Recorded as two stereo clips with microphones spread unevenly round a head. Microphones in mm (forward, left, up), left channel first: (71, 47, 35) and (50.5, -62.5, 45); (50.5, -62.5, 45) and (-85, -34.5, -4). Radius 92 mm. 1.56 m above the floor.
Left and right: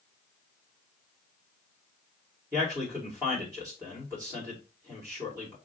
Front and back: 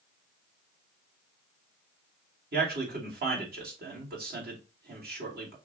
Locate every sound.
2.5 s a man speaking: 175° right, 2.5 m